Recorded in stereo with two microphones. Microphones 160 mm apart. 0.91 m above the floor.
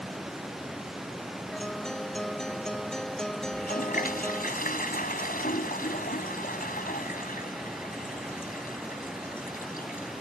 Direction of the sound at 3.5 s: 65° left (ahead or behind).